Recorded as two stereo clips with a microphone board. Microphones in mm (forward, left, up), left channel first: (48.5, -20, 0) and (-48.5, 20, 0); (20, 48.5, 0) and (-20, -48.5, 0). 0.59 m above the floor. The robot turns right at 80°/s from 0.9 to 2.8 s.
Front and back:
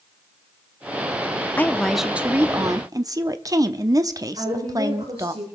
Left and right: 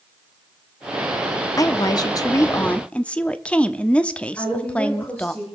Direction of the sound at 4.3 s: 135° left.